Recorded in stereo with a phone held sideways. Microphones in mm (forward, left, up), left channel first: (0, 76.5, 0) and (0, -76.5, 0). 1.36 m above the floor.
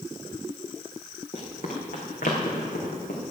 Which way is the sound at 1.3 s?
45° left (ahead or behind).